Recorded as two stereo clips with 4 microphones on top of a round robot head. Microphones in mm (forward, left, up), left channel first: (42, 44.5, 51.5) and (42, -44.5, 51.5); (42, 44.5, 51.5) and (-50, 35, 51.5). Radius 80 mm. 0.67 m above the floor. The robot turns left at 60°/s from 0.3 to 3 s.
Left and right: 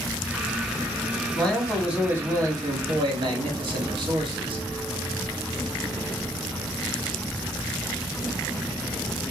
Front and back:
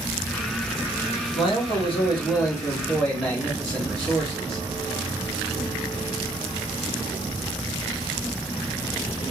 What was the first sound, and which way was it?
A man speaking, 20° left.